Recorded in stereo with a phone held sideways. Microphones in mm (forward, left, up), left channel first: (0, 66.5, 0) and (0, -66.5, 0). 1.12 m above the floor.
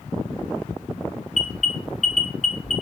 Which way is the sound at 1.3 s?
55° left (ahead or behind).